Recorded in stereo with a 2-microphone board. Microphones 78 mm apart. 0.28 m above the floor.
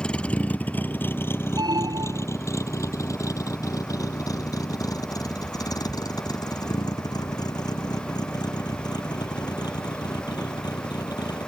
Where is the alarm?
60° right (ahead or behind).